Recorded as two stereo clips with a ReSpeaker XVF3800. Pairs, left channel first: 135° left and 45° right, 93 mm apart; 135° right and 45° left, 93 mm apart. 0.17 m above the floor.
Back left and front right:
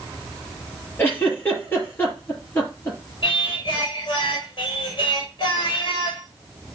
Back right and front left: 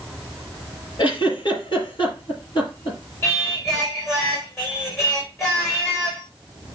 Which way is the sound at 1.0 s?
160° right.